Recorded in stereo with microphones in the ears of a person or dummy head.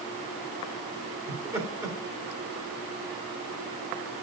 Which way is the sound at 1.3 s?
20° right (ahead or behind).